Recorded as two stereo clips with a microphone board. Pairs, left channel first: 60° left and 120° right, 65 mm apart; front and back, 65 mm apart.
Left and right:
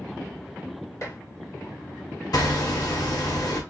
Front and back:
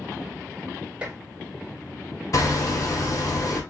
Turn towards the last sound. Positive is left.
turn(degrees=35)